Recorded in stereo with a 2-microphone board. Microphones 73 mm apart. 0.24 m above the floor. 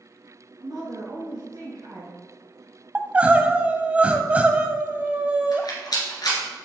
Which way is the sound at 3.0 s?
20° right (ahead or behind).